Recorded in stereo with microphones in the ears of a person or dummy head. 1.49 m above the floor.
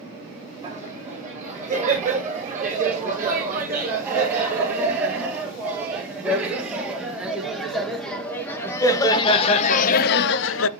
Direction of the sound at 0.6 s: 20° right (ahead or behind).